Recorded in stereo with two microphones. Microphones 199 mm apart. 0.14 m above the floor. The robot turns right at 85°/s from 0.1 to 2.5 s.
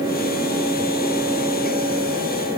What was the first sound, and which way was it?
Only background noise.